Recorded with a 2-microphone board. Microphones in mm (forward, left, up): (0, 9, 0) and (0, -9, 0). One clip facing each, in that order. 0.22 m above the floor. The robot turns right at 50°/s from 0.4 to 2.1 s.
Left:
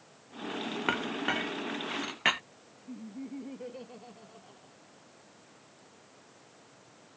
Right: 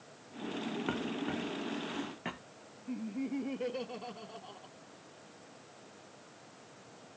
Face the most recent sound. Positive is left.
turn(degrees=-30)  # may be behind; listen again after turning